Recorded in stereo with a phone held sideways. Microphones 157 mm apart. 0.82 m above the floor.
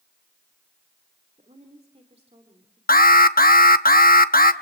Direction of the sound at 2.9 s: 65° left (ahead or behind).